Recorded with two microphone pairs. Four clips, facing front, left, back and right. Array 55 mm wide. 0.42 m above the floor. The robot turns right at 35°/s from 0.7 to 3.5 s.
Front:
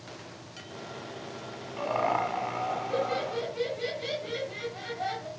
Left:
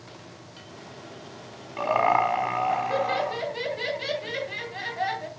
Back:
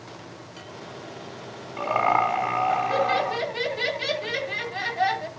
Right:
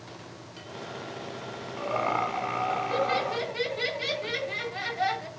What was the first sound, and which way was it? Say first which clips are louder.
Laughter: left 6 dB, back 6 dB; 105° left.